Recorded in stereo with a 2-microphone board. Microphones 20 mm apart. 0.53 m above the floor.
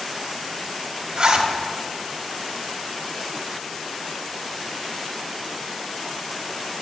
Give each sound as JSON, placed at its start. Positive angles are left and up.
{"t": 1.2, "sound": "a zipper", "side_deg": -40, "distance_m": 1.1}